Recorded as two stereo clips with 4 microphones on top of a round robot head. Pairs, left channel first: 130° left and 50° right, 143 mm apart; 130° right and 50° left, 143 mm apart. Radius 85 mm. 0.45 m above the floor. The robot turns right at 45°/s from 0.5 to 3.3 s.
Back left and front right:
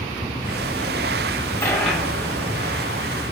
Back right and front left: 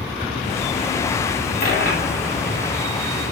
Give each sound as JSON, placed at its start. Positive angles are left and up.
{"t": 1.6, "sound": "a dropped coin", "azimuth_deg": -155, "distance_m": 1.3}